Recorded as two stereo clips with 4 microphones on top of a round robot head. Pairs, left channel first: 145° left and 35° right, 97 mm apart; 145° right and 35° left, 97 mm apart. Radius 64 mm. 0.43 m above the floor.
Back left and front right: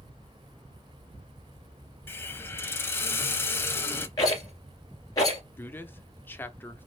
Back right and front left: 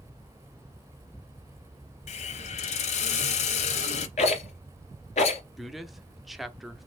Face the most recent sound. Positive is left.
turn(degrees=120)